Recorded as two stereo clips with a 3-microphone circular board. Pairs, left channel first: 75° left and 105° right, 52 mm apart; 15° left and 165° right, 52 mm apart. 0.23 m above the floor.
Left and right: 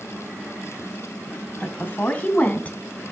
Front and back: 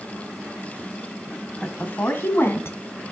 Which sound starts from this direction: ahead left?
A woman speaking, at 1.6 s.